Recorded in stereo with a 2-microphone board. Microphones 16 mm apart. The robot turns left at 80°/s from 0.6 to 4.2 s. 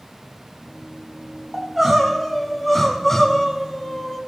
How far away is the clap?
No clap in this recording.